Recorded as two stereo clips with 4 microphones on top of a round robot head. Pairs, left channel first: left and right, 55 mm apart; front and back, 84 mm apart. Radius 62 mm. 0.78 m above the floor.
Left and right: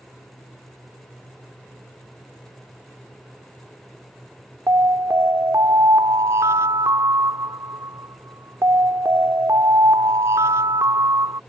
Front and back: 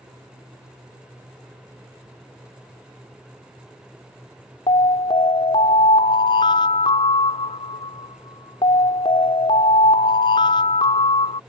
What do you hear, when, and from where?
4.7 s an alarm: 40° right